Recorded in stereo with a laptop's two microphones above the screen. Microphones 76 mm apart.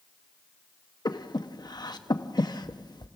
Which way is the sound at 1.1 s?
65° left (ahead or behind).